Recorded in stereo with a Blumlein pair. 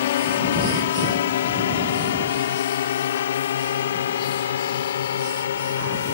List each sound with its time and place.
0.0 s a drone: 60° left; by 6.2 s 65° left